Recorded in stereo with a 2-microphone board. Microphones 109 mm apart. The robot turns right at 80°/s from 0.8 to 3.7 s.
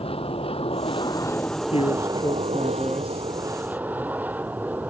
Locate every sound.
0.0 s an aircraft: 115° left; by 4.9 s 15° right
1.7 s a man speaking: 90° left; by 3.3 s 145° right